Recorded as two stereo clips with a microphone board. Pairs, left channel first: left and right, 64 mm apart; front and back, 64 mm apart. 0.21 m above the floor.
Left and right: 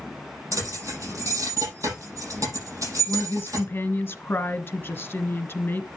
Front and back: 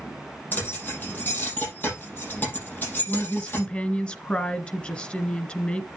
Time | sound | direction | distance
0.5 | keys jangling | 60° right | 5.5 m
3.1 | a woman speaking | 60° left | 1.5 m